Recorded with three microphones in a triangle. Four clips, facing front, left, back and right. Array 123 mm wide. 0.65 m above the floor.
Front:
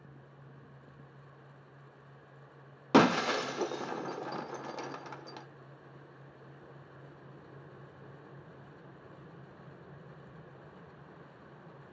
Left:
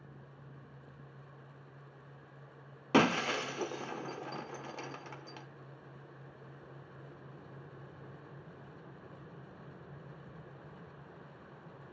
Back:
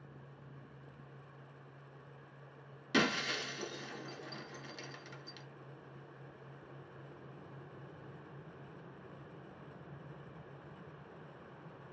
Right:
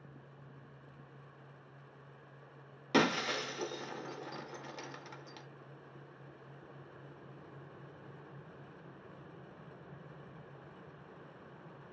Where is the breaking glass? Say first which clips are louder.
Left 3 dB, front 10 dB; 5° left, 0.5 m.